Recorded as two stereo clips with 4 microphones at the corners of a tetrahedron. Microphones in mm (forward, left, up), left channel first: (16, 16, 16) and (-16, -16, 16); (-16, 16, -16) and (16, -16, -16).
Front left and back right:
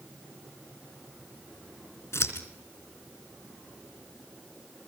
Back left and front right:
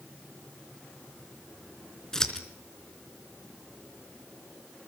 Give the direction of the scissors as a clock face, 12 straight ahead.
10 o'clock.